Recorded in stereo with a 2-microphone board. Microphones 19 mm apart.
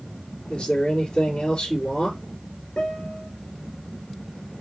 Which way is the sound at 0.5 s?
70° left (ahead or behind).